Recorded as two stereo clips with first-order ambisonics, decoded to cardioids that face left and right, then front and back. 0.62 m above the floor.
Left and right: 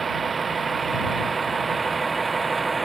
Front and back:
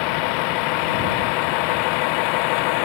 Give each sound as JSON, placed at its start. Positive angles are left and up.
{"t": 0.0, "sound": "a vehicle", "azimuth_deg": -15}